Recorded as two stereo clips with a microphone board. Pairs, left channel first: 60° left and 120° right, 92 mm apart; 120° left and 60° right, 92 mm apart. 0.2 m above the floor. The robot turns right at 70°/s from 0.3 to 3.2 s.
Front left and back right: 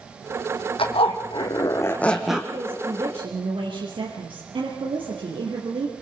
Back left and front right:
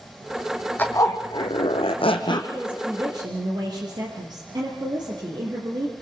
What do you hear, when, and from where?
0.8 s a zipper: 50° left, 1.6 m; by 2.4 s 160° left, 1.6 m
2.5 s a woman speaking: 150° right, 4 m; by 5.9 s 100° right, 4 m